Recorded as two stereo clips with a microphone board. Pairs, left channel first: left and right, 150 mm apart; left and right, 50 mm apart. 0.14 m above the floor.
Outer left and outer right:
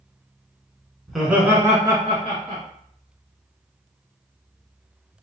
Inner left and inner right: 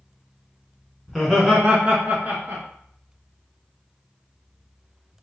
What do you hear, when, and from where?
1.1 s laughter: centre (ahead or behind), 1.1 m; by 2.6 s 45° right (ahead or behind), 1.6 m